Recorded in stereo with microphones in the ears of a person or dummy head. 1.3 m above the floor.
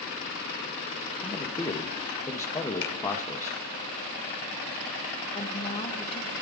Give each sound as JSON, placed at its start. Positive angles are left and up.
{"t": 1.2, "sound": "a man speaking", "side_deg": 15, "distance_m": 0.6}
{"t": 2.8, "sound": "a finger snap", "side_deg": 75, "distance_m": 0.9}
{"t": 5.3, "sound": "a woman speaking", "side_deg": 30, "distance_m": 1.2}